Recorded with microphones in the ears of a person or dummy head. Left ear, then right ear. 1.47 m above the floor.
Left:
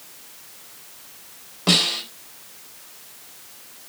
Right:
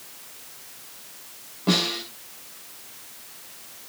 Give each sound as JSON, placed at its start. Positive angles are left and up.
{"t": 1.7, "sound": "a snare drum", "side_deg": 65, "distance_m": 4.0}